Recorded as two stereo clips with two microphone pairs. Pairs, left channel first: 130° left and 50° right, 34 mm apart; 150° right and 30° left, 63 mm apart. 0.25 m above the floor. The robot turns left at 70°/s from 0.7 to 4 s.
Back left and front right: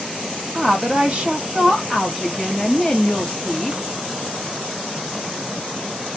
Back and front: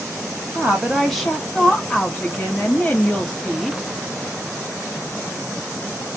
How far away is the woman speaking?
About 1.4 m.